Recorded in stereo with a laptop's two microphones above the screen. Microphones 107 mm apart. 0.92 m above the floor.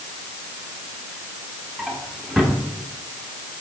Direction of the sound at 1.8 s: 5° right (ahead or behind).